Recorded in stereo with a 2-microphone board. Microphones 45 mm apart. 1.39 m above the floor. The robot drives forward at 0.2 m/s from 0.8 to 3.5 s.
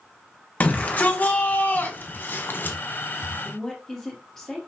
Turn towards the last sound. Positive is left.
turn(degrees=10)  # may be behind; listen again after turning